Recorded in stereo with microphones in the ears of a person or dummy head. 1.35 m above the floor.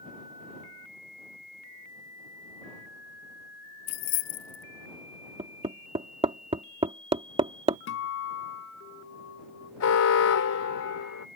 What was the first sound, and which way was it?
Keys jangling, 40° left (ahead or behind).